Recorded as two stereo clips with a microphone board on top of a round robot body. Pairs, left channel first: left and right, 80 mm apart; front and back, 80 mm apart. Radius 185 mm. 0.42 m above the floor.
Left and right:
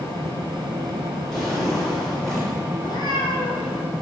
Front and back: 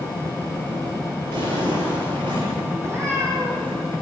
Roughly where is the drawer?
Behind.